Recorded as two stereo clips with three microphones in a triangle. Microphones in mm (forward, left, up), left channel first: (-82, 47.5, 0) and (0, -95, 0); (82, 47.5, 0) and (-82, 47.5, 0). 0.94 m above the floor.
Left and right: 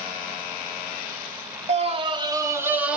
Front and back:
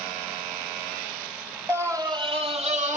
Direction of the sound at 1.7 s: 105° right.